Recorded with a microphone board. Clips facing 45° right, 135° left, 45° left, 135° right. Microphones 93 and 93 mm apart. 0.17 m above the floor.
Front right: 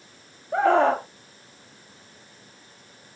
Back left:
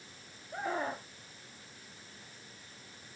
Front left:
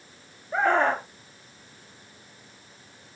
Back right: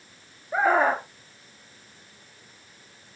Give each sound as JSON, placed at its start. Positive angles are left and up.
{"t": 0.5, "sound": "a scream", "azimuth_deg": -50}